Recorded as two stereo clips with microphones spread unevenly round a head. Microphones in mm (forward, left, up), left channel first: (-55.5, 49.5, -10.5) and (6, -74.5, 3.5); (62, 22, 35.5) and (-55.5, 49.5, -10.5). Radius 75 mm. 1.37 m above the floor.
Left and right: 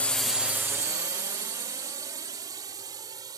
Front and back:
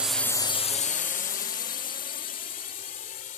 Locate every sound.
0.0 s a drone: straight behind; by 3.4 s 5° left